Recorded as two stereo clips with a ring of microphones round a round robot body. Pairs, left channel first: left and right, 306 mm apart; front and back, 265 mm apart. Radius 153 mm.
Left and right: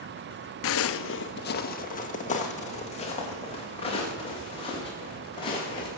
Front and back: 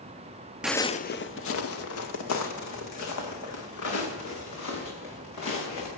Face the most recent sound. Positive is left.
turn(degrees=15)